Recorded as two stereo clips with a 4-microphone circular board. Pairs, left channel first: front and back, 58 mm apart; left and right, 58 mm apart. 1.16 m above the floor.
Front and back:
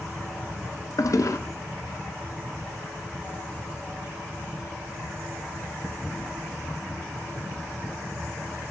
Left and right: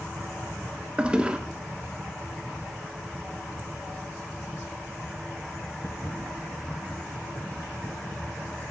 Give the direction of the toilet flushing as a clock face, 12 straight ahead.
1 o'clock.